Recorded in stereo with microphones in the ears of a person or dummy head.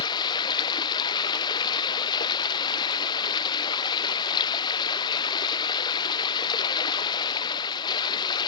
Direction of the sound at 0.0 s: 25° left (ahead or behind).